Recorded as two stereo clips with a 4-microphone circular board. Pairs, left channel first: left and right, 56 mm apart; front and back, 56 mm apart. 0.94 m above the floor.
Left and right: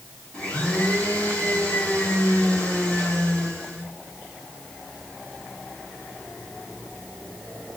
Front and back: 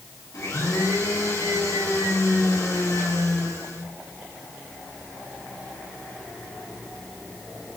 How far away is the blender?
About 7.5 m.